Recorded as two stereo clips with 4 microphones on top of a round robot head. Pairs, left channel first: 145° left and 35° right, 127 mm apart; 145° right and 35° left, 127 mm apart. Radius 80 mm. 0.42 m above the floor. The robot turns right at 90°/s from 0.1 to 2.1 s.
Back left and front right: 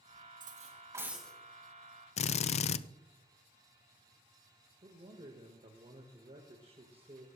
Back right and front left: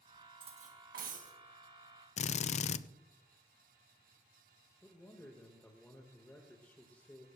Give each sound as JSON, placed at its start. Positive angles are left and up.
{"t": 0.4, "sound": "cutlery clinking", "azimuth_deg": -15, "distance_m": 2.0}
{"t": 2.2, "sound": "a drill", "azimuth_deg": 180, "distance_m": 0.5}
{"t": 4.8, "sound": "a man speaking", "azimuth_deg": -70, "distance_m": 1.5}